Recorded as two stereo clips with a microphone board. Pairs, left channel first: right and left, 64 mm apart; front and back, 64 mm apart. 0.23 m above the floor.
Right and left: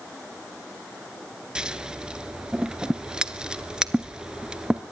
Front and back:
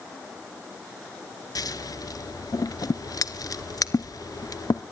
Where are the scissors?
15° left, 0.8 m.